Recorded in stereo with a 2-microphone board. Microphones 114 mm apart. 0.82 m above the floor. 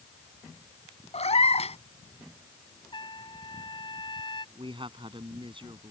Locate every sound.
1.1 s a cat meowing: 65° left (ahead or behind)
2.9 s a trumpet: 40° left (ahead or behind)
4.5 s a man speaking: 45° right (ahead or behind)